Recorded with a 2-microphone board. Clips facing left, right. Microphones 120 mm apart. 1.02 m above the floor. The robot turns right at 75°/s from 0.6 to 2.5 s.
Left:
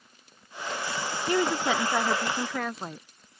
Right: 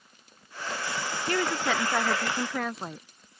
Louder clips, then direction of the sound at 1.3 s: Left 3 dB; 20° left (ahead or behind).